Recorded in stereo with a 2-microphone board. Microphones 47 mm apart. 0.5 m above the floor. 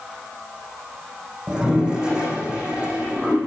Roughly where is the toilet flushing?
Centre.